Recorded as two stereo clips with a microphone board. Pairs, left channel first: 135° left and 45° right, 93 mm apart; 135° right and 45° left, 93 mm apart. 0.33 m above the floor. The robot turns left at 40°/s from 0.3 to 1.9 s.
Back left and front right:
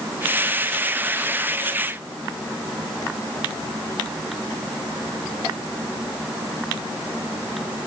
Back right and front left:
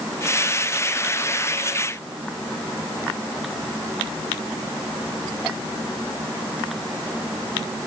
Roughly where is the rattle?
I don't hear a rattle.